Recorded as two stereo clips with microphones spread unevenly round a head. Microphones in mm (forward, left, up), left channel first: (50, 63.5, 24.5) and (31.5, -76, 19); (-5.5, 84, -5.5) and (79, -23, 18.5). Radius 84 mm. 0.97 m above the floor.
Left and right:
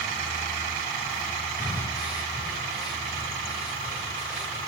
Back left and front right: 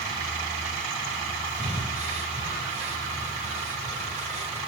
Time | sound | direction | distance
1.6 | breathing | 10° right | 3.5 m